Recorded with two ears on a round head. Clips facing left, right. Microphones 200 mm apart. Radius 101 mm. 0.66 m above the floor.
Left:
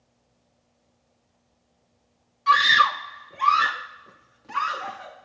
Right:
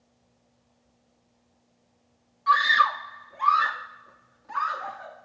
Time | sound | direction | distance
2.5 | a scream | 40° left (ahead or behind) | ?